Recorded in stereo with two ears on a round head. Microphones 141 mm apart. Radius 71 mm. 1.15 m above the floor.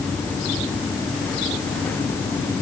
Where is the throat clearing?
No throat clearing in this recording.